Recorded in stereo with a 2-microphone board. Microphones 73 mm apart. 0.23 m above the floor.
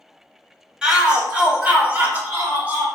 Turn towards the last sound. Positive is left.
turn(degrees=-25)  # may be behind; listen again after turning